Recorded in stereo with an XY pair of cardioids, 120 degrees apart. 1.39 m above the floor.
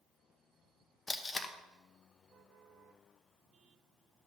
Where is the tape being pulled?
25° left, 0.8 m.